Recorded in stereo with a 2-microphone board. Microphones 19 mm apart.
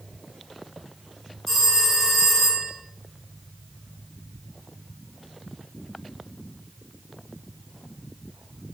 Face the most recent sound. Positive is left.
turn(degrees=0)  # may be behind; listen again after turning